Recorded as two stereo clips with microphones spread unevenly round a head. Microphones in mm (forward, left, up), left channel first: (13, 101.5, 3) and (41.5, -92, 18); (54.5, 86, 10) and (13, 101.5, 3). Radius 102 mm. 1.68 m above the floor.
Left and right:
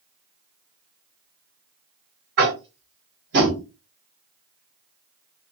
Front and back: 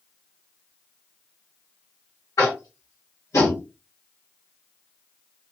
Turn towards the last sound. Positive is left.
turn(degrees=-45)